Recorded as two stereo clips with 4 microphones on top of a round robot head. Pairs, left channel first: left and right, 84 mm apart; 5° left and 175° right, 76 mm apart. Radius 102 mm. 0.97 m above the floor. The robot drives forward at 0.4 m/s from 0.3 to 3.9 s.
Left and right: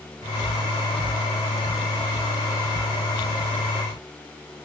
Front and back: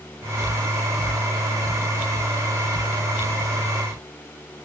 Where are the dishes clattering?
I don't hear dishes clattering.